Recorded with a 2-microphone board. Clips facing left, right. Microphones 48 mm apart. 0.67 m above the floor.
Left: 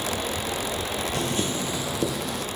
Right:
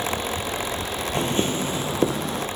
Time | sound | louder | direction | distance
1.1 | footsteps | right 6 dB | 30° right (ahead or behind) | 0.7 m